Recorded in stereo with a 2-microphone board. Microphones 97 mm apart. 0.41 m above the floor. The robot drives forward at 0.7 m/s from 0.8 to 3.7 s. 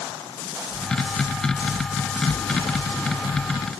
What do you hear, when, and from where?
Only background noise.